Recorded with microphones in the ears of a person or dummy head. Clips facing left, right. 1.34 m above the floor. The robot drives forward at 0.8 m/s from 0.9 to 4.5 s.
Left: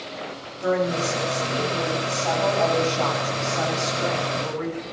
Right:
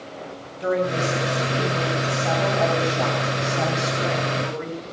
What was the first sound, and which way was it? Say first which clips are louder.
A woman speaking: even; 5° right (ahead or behind).